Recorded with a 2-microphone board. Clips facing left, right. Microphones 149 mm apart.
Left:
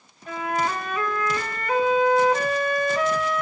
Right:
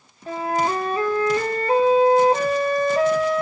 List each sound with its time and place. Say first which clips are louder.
0.3 s a flute: right 3 dB; 30° right (ahead or behind), 0.9 m